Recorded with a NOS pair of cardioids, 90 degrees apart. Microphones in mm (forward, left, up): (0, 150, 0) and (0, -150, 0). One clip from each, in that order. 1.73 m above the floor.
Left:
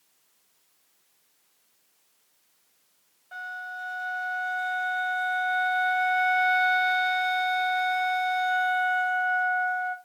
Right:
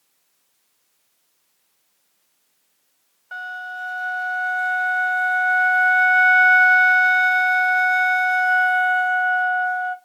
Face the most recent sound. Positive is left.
turn(degrees=-50)